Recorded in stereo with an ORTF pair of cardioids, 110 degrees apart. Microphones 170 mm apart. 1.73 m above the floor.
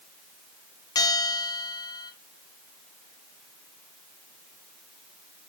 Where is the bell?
25° left, 1.0 m.